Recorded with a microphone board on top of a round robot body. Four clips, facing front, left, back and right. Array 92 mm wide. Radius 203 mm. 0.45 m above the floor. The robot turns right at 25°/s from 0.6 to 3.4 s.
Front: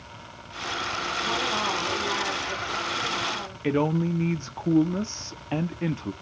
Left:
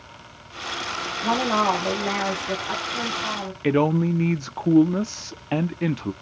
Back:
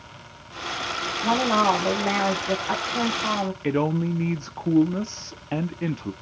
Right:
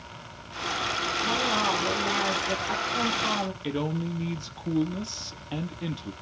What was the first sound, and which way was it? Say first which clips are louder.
A woman speaking: left 7 dB, back 10 dB; 135° left.